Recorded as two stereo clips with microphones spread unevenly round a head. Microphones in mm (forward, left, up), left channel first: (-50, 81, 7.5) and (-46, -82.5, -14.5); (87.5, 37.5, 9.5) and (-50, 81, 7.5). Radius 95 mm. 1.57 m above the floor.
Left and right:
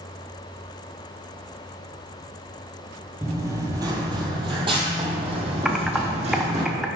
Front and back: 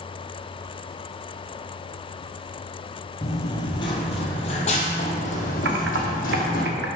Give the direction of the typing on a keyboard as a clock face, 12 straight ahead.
6 o'clock.